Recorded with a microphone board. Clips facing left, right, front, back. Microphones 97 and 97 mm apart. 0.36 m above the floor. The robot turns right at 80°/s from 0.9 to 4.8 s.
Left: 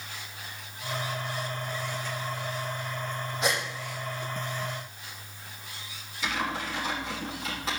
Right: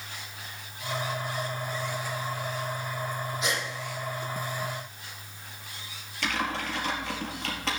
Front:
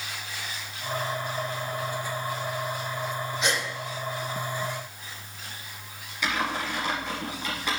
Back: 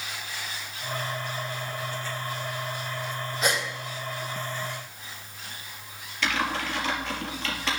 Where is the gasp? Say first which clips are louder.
Left 4 dB, back 2 dB; 130° left, 4 m; by 3.6 s 150° left, 4 m.